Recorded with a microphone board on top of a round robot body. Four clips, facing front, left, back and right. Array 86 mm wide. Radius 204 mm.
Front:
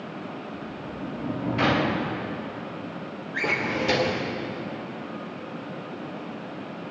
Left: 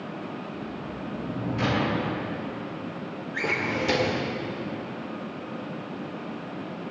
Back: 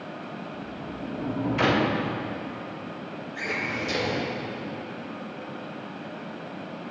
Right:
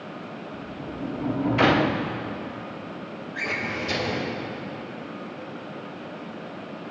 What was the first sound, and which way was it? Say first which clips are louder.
A sliding door: even, front 1 dB; 100° right.